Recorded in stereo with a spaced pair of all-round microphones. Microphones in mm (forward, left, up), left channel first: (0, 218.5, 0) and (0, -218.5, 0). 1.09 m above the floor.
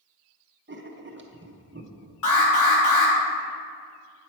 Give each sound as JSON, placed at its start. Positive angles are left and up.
{"t": 0.7, "sound": "writing", "side_deg": -25, "distance_m": 0.6}
{"t": 2.2, "sound": "an alarm", "side_deg": 45, "distance_m": 2.0}